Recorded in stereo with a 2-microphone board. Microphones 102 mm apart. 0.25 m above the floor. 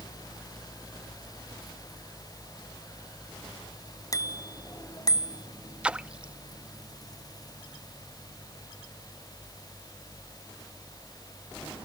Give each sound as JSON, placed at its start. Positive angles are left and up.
{"t": 4.1, "sound": "a bicycle bell", "side_deg": 35}
{"t": 5.8, "sound": "a splash", "side_deg": -10}